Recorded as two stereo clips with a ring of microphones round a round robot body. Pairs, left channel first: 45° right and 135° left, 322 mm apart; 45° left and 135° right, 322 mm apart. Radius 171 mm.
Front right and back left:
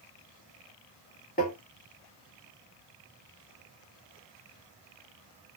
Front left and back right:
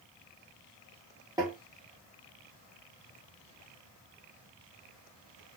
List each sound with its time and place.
1.4 s tapping: 70° right, 1.5 m